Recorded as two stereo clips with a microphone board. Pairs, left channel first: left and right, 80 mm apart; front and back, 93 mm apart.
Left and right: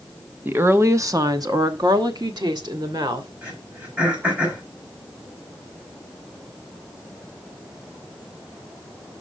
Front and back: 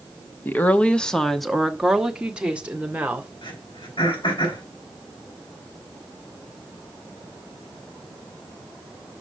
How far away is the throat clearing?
About 5 m.